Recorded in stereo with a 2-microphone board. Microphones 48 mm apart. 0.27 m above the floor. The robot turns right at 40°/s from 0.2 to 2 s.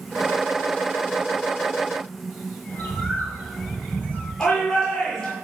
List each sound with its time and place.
2.7 s a bird: 40° left (ahead or behind), 4 m
4.4 s a shout: 20° left (ahead or behind), 6 m